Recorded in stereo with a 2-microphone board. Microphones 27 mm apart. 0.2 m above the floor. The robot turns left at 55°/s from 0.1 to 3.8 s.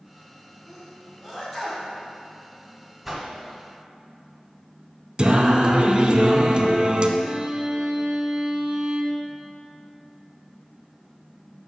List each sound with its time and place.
0.7 s a sneeze: 20° right (ahead or behind), 1.7 m; by 1.9 s 10° right (ahead or behind), 1.7 m
3.0 s a whoosh: 10° right (ahead or behind), 1.1 m; by 3.3 s 15° right (ahead or behind), 1.1 m
5.2 s singing: 40° right (ahead or behind), 0.5 m
7.2 s a violin: 30° right (ahead or behind), 0.8 m